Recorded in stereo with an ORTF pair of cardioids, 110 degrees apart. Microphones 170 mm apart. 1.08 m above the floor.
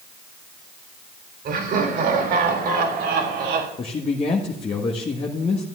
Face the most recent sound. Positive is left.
turn(degrees=35)